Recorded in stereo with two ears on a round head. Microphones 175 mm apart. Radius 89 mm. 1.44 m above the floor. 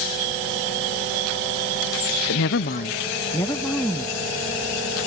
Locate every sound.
2.3 s a woman speaking: 80° left; by 4.2 s 5° left (ahead or behind)